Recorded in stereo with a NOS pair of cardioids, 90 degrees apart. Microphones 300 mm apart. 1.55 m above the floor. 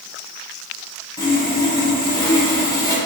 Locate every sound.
1.2 s sawing: 10° left, 1.4 m